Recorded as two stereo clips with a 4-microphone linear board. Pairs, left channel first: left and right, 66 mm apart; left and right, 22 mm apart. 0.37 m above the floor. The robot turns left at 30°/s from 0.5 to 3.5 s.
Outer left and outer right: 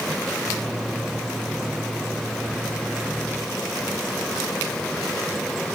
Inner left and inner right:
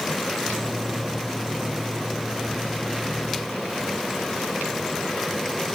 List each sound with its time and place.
Only background noise.